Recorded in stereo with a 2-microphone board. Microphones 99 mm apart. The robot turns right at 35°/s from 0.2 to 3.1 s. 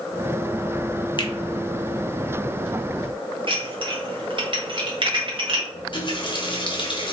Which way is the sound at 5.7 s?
50° left (ahead or behind).